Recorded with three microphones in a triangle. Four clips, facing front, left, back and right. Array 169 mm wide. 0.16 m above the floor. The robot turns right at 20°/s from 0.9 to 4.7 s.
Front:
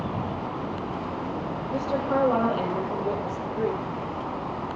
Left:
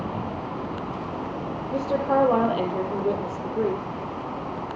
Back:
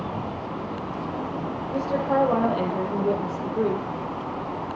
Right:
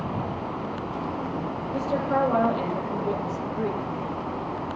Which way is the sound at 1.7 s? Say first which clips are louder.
Left 3 dB, back 2 dB; 95° left.